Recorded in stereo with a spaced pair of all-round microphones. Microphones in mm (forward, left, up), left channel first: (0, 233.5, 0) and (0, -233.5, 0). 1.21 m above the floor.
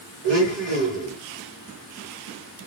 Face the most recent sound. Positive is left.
turn(degrees=-70)  # may be behind; listen again after turning